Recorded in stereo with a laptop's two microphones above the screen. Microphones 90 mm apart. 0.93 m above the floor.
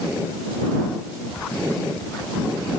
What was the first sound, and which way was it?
Only background noise.